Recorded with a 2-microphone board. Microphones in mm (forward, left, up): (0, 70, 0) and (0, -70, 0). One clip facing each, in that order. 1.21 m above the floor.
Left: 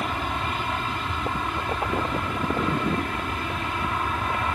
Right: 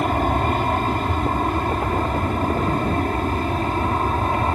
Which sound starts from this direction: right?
An aircraft, at 0.0 s.